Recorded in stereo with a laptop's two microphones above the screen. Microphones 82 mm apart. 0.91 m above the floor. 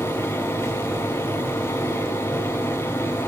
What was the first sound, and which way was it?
A fan, 35° left (ahead or behind).